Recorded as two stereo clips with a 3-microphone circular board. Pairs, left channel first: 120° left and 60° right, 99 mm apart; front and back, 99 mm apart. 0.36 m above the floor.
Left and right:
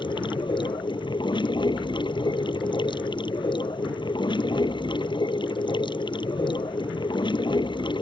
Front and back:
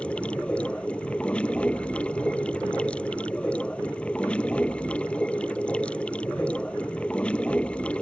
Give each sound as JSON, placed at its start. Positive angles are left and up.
{"t": 0.0, "sound": "running water", "azimuth_deg": 80}